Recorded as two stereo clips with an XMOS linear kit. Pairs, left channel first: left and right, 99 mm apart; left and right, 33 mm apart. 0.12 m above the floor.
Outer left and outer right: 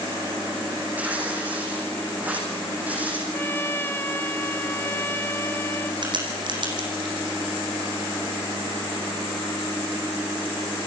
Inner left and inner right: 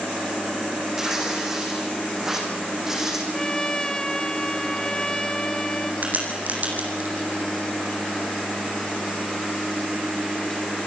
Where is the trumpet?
20° left (ahead or behind), 1.2 m.